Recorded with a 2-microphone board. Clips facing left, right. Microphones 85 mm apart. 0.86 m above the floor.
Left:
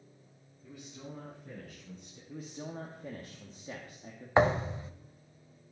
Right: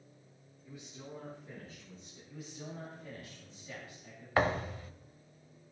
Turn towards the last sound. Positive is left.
turn(degrees=25)  # may be behind; listen again after turning